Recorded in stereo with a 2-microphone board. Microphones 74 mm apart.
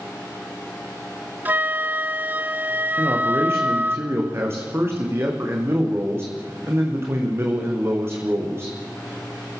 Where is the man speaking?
35° right (ahead or behind), 7.5 m.